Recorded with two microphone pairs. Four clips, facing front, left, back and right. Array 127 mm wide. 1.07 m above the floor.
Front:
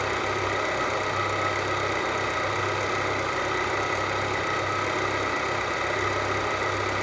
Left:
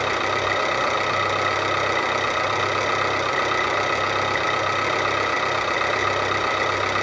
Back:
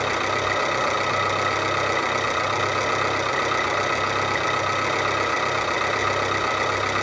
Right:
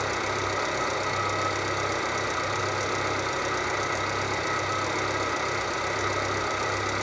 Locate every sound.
0.0 s an engine running: 115° left, 2.5 m